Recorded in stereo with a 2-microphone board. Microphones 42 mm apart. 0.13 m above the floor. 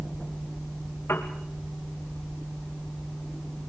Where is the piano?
75° left (ahead or behind), 3.5 m.